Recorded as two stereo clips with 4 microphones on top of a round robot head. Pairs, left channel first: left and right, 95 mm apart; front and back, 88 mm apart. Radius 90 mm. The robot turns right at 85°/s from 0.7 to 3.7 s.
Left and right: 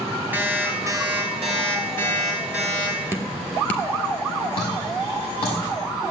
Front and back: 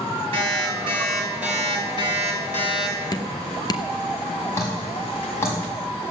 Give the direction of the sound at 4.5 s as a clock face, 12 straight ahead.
10 o'clock.